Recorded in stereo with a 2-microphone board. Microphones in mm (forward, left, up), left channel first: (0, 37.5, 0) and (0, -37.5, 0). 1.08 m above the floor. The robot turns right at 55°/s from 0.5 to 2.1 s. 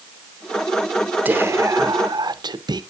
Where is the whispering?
155° right, 0.6 m; by 2.8 s 110° right, 0.6 m.